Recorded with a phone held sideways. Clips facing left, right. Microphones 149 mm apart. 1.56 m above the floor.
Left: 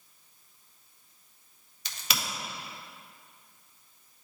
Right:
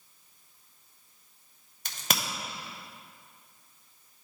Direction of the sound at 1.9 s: 50° right (ahead or behind).